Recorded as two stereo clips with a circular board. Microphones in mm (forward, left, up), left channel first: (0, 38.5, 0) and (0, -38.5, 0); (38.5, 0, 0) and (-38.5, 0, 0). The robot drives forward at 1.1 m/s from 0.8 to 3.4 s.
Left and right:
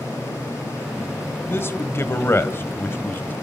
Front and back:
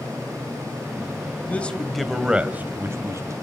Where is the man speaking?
55° left, 1.8 m; by 3.3 s 150° left, 2 m.